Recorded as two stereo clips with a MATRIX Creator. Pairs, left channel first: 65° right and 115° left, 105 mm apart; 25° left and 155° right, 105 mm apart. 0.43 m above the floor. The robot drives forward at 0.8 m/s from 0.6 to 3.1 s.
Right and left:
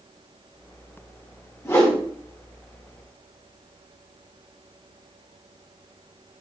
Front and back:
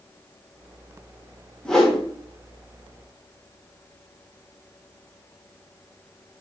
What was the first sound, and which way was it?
A whoosh, 50° right.